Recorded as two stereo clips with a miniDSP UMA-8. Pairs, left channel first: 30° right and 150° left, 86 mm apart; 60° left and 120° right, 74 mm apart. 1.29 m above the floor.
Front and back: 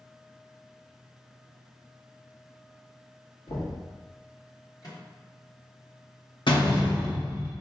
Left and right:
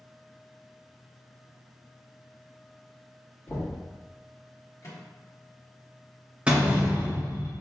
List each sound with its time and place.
3.5 s knocking: 5° right, 1.4 m
4.8 s a microwave: 10° left, 1.4 m
6.5 s a door slam: 45° right, 1.2 m